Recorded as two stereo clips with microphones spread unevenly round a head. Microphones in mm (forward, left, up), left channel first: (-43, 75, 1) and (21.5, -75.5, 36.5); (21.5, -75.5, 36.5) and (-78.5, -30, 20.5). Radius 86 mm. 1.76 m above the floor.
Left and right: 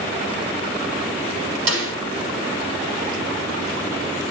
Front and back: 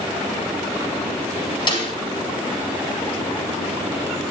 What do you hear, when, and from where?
1.7 s a snare drum: 65° right, 9.5 m